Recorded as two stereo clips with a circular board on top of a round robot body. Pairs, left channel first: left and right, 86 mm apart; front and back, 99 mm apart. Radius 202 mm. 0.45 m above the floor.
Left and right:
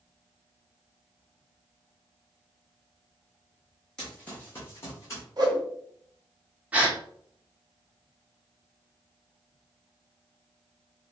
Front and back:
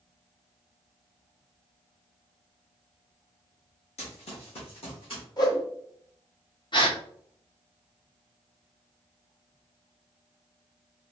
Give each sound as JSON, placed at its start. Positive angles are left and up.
{"t": 4.0, "sound": "running footsteps", "azimuth_deg": 10, "distance_m": 1.2}
{"t": 5.4, "sound": "a whoosh", "azimuth_deg": -50, "distance_m": 1.3}
{"t": 6.7, "sound": "a gasp", "azimuth_deg": -20, "distance_m": 1.3}